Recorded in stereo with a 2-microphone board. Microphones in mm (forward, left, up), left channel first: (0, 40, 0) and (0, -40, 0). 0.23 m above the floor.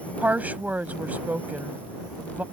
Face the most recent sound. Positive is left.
turn(degrees=-20)  # may be behind; listen again after turning